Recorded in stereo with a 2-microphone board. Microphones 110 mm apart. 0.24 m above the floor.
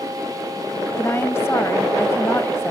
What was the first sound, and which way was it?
A woman speaking, 20° left (ahead or behind).